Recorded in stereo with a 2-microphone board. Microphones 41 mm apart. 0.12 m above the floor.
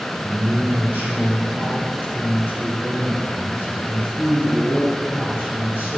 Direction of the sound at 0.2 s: 40° right (ahead or behind).